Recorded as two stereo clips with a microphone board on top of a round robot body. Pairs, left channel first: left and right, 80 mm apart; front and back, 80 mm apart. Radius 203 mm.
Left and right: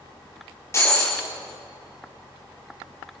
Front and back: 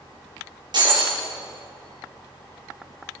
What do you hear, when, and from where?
0.7 s breaking glass: 150° left, 6 m